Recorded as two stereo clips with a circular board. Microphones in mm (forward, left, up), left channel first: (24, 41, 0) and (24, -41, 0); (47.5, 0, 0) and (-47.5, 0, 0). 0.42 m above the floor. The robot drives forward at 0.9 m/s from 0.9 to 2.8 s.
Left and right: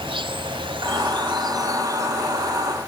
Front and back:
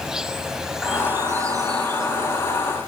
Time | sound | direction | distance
0.0 | an insect | 95° right | 0.8 m